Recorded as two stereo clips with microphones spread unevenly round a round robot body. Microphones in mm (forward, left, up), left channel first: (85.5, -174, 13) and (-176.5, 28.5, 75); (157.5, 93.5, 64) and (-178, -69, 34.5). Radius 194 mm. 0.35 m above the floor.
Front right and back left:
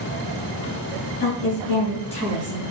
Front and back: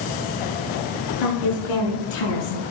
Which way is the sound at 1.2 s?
30° left.